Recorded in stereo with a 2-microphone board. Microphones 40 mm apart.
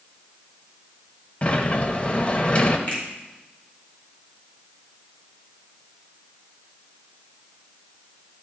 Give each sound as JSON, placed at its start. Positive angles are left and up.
{"t": 1.4, "sound": "a sliding door", "side_deg": 30, "distance_m": 0.7}
{"t": 2.9, "sound": "a finger snap", "side_deg": 35, "distance_m": 3.5}